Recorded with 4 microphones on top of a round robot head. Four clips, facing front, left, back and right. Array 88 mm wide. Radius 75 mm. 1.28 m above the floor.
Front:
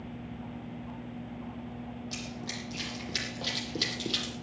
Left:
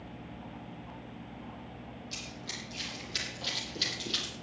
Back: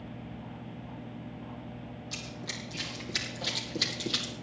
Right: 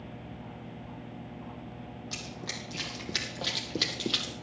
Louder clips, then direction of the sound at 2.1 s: Right 3 dB, front 2 dB; 75° right.